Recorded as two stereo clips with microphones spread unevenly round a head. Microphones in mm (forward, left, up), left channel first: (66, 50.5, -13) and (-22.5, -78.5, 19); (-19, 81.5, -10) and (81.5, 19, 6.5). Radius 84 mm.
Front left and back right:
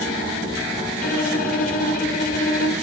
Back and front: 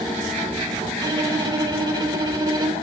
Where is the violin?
20° left, 2.5 m.